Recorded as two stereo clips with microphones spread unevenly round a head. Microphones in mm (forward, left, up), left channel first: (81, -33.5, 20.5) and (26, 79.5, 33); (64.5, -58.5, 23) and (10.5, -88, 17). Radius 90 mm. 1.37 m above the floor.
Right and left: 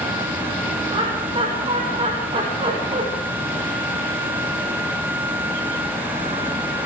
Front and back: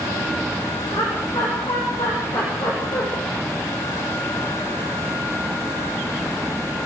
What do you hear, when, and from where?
0.9 s laughter: 75° left, 6 m